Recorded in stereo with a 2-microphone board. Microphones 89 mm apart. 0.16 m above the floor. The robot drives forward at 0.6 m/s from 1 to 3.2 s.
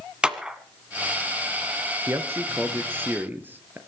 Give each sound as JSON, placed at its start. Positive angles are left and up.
{"t": 0.2, "sound": "a clap", "side_deg": -10, "distance_m": 1.5}
{"t": 2.1, "sound": "a man speaking", "side_deg": -30, "distance_m": 1.9}